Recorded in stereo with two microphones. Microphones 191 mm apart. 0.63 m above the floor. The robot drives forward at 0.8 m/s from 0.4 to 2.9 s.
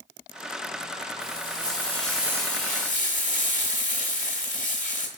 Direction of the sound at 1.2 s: 20° left (ahead or behind).